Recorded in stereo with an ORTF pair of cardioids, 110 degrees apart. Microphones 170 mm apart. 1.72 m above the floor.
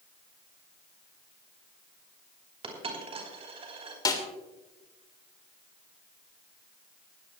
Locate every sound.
2.6 s a dropped coin: 35° right, 4.5 m
4.0 s a snare drum: 25° left, 3 m